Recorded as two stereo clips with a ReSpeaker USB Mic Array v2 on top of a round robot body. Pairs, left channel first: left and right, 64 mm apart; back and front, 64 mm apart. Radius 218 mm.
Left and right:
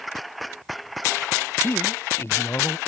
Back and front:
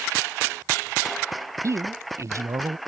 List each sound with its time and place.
1.6 s a man speaking: 40° left